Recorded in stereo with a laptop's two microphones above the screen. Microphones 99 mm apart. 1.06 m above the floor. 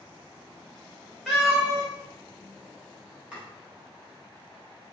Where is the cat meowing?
5° right (ahead or behind), 1.3 m.